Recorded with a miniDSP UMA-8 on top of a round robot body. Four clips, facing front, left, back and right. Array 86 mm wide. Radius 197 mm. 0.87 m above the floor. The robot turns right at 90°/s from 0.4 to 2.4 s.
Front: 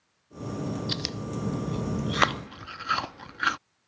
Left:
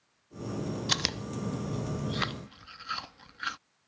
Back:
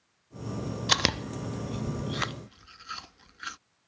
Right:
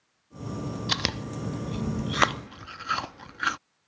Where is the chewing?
175° right; by 3.6 s 35° right.